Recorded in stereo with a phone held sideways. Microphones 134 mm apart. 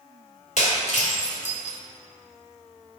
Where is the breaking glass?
60° left (ahead or behind), 1.6 m.